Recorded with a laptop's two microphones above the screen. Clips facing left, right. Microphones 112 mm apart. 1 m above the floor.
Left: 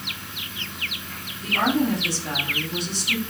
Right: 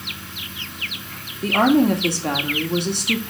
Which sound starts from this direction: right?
A woman speaking, at 1.4 s.